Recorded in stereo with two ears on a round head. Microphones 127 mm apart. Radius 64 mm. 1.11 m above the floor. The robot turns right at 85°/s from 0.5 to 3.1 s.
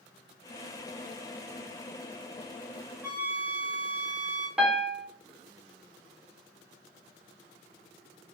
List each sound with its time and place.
3.0 s a flute: 15° right (ahead or behind), 0.8 m; by 4.5 s 10° right (ahead or behind), 0.8 m
4.6 s a piano: 5° right (ahead or behind), 0.7 m